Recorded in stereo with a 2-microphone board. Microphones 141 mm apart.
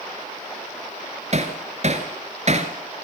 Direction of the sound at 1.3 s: 50° right (ahead or behind).